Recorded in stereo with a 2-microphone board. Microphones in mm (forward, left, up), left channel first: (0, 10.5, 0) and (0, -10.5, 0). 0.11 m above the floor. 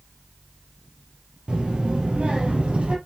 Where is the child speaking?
50° right (ahead or behind), 1.9 m; by 3.0 s 65° right (ahead or behind), 2.5 m.